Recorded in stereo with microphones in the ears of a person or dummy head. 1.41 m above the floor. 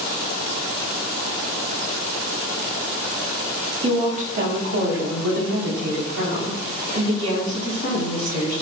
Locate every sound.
3.8 s a woman speaking: 25° right (ahead or behind), 1.0 m; by 8.6 s 85° right, 3.5 m